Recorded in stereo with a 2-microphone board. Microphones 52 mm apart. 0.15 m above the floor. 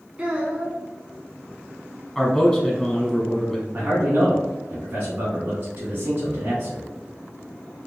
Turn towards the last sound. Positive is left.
turn(degrees=-35)  # may be behind; listen again after turning